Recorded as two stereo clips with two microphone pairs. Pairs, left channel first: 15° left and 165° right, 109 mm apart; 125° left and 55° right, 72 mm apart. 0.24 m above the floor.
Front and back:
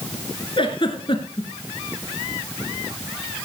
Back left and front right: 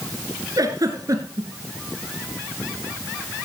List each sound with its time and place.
0.6 s a giggle: 25° right, 2 m